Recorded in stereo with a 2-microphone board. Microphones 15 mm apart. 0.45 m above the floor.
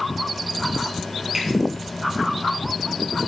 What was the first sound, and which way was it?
A finger snap, 35° right (ahead or behind).